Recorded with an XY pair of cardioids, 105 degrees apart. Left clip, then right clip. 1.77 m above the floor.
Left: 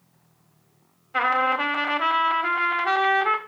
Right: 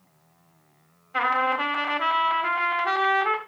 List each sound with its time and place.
1.1 s a trumpet: 15° left, 1.3 m